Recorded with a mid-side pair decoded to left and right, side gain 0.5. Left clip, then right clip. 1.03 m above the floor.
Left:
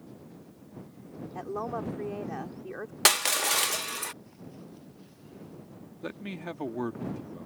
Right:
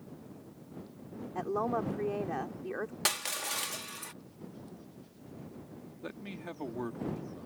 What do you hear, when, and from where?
1.4 s a woman speaking: 20° right
3.0 s crushing: 50° left
6.0 s a man speaking: 30° left